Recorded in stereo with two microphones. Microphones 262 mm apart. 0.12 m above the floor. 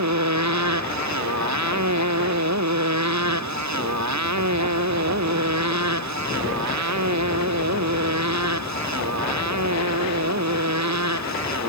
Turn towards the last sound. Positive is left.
turn(degrees=-75)  # may be behind; listen again after turning